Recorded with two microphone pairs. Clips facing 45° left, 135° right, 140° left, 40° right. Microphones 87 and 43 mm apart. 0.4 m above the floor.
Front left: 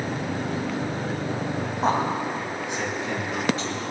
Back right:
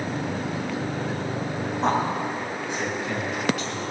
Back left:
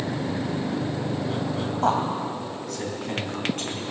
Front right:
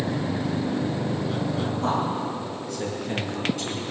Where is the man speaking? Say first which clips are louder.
Even, back left 4 dB; 135° left, 2 m; by 3.8 s 105° left, 4 m.